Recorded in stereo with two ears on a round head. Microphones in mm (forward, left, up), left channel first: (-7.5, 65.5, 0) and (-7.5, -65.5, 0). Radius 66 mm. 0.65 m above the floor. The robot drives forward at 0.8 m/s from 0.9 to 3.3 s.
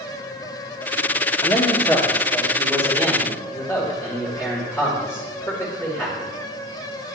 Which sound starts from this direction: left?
A man speaking, at 1.4 s.